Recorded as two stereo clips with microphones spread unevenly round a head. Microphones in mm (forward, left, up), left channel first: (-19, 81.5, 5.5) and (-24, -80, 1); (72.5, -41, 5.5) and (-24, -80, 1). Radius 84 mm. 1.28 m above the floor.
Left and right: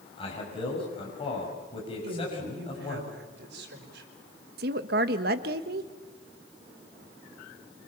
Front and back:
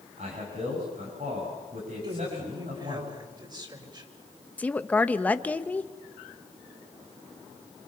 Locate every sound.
0.2 s a man speaking: 145° left, 6.5 m
2.0 s a woman speaking: 110° right, 5.5 m
4.6 s a woman speaking: 55° right, 1.4 m